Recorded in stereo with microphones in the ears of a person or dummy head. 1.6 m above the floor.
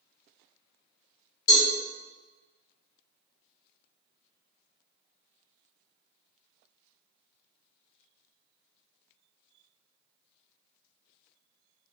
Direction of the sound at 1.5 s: 85° left.